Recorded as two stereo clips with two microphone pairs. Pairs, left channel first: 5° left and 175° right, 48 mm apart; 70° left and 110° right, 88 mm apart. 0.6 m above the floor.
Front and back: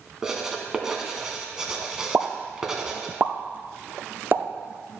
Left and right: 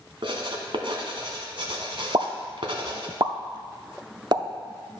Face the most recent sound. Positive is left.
turn(degrees=-135)